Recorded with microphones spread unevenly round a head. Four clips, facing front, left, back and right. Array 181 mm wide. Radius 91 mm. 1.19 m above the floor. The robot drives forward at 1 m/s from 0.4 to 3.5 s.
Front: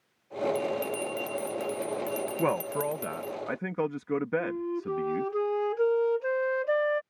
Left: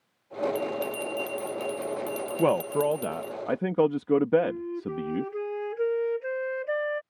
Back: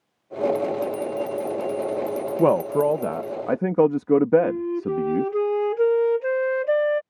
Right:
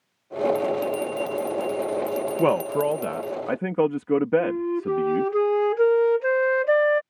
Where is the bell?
5° left; by 3.4 s 10° left.